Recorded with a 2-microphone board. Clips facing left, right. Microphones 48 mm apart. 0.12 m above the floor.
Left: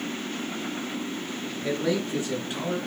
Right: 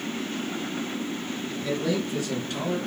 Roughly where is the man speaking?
Left.